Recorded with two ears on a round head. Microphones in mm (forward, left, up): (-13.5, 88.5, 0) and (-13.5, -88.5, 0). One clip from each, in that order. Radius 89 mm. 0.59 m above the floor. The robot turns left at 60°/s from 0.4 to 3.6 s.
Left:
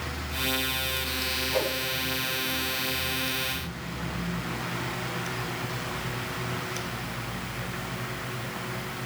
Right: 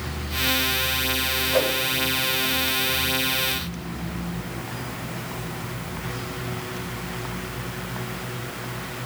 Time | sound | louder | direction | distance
1.5 | a whoosh | right 7 dB | 10° left (ahead or behind) | 1.1 m